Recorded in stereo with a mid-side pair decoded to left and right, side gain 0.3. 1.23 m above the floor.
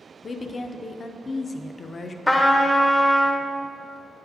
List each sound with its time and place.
0.2 s a woman speaking: 50° left, 0.6 m
2.3 s a trumpet: 20° left, 0.8 m